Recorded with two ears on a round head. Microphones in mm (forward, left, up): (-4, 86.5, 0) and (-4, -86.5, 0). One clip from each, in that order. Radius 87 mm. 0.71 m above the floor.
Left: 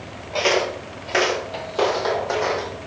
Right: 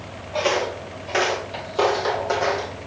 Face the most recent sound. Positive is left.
turn(degrees=-5)  # may be behind; listen again after turning